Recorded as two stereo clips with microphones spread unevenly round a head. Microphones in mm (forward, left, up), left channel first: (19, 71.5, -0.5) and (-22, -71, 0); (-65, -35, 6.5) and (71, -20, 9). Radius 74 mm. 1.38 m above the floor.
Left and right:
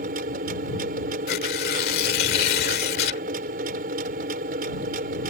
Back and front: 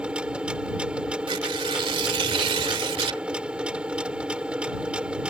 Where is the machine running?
75° right.